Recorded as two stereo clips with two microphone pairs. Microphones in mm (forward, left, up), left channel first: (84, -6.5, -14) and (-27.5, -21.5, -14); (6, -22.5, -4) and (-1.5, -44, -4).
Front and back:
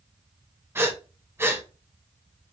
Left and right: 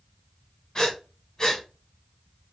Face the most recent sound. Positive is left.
turn(degrees=125)